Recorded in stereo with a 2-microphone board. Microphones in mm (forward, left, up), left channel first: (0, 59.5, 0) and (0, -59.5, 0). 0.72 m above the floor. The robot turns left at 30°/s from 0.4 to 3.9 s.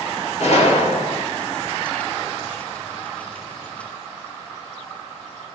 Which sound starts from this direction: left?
A gunshot, at 0.4 s.